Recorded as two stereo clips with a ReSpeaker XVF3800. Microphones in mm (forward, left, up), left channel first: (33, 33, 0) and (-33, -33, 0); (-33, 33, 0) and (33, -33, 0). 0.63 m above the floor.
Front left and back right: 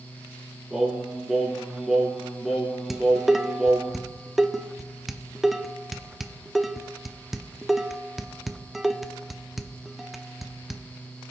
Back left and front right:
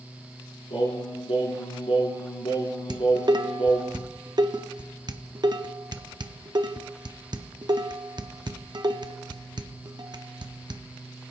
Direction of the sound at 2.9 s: 50° right.